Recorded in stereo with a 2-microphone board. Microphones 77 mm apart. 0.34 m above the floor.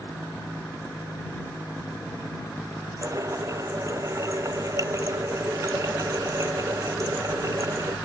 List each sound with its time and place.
3.0 s a running tap: 45° right (ahead or behind)